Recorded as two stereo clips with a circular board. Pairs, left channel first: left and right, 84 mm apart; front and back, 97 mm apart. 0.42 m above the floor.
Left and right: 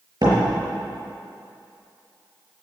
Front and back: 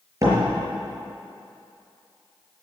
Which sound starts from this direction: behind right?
A door slam, at 0.2 s.